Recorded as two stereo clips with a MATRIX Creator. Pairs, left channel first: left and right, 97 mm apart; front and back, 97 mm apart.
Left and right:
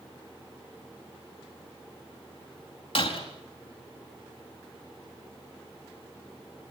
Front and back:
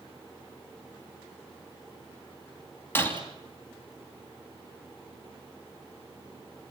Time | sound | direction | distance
3.0 | breaking glass | 70° left | 3.5 m